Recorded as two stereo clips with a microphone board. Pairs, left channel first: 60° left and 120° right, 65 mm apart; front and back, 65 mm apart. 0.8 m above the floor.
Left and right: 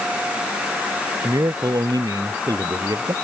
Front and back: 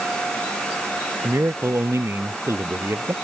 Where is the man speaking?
135° right.